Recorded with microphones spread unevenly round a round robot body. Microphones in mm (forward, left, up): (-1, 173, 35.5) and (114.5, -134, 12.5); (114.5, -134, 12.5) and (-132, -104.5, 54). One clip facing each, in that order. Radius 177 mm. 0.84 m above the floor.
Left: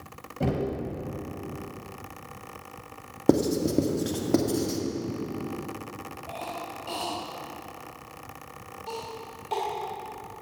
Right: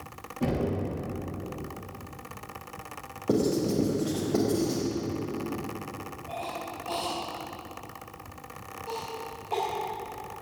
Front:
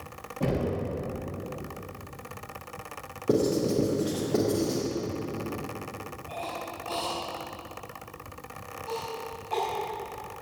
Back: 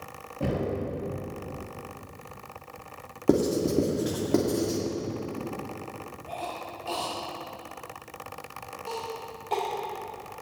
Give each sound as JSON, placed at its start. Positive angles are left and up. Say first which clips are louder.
{"t": 0.4, "sound": "knocking", "louder": "even, front 1 dB", "azimuth_deg": 95, "distance_m": 5.0}
{"t": 3.3, "sound": "writing", "louder": "left 3 dB, back 1 dB", "azimuth_deg": 125, "distance_m": 2.0}
{"t": 6.3, "sound": "a cough", "louder": "even, even", "azimuth_deg": 150, "distance_m": 3.0}